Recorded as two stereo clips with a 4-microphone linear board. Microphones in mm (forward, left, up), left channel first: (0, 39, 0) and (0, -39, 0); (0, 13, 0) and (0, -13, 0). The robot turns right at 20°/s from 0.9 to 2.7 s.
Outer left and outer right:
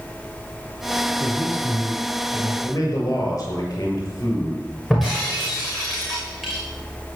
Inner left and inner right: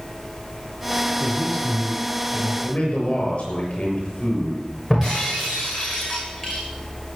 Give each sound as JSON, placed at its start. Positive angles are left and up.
{"t": 1.2, "sound": "a man speaking", "side_deg": 30, "distance_m": 2.0}
{"t": 2.6, "sound": "a man speaking", "side_deg": 45, "distance_m": 6.5}
{"t": 4.9, "sound": "breaking glass", "side_deg": 0, "distance_m": 7.0}